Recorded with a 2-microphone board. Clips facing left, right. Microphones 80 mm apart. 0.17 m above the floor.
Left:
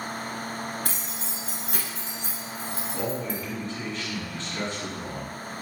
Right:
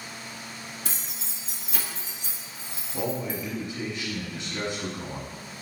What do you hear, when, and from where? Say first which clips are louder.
0.8 s keys jangling: left 5 dB; 60° left (ahead or behind), 1.4 m; by 3.4 s 35° left (ahead or behind), 1.4 m
2.9 s a man speaking: right 2 dB; 15° right (ahead or behind), 1.3 m